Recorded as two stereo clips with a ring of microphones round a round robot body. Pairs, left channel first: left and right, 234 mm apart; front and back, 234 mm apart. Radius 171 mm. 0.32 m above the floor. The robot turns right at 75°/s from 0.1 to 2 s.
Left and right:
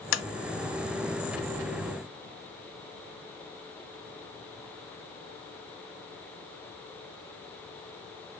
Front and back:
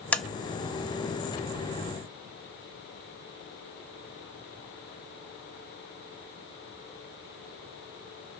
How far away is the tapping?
About 0.8 m.